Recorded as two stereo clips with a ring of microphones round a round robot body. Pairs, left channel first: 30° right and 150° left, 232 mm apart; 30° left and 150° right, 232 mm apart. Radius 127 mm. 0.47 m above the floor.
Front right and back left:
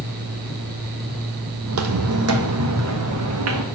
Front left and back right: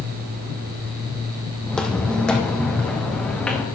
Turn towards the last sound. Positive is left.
turn(degrees=115)